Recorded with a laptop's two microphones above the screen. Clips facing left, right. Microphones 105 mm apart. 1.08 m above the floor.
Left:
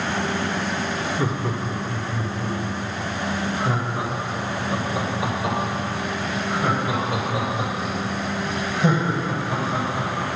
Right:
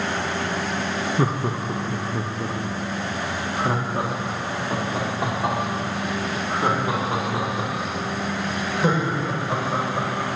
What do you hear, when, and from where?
1.2 s laughter: 45° right (ahead or behind), 1.0 m; by 10.4 s 50° right (ahead or behind), 5.5 m